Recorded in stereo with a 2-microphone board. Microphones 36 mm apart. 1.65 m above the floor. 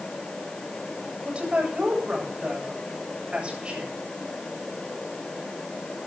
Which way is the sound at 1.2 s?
35° right (ahead or behind).